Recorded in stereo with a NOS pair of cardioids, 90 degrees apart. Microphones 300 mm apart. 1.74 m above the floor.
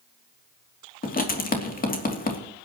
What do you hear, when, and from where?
1.0 s writing: 30° left, 3 m